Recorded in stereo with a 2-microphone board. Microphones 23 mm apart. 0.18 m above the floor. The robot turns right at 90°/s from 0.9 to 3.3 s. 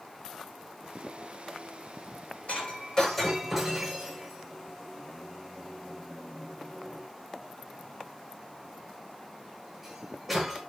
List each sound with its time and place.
2.5 s breaking glass: 80° left, 7.5 m; by 10.6 s 5° left (ahead or behind), 7.5 m